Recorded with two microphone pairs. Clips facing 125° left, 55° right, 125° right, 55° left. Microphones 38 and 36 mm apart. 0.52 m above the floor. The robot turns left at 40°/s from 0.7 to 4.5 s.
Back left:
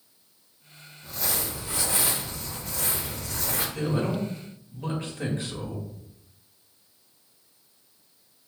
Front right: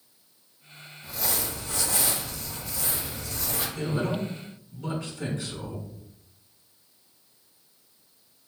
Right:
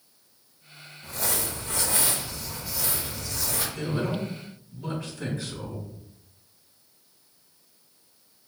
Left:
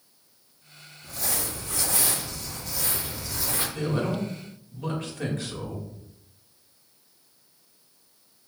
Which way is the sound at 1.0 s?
135° right.